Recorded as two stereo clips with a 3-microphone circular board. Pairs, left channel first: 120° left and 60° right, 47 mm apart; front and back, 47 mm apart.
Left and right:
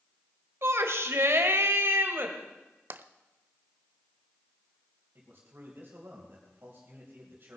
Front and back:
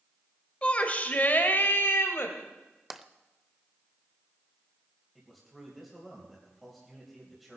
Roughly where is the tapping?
Right.